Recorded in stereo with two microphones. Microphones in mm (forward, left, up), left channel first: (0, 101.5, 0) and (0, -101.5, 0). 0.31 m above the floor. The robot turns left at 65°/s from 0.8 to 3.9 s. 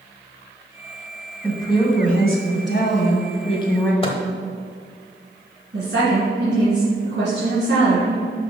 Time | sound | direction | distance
1.4 | a woman speaking | 170° left | 1.7 m
4.0 | a microwave | 30° left (ahead or behind) | 1.0 m
5.7 | a woman speaking | 60° right (ahead or behind) | 3 m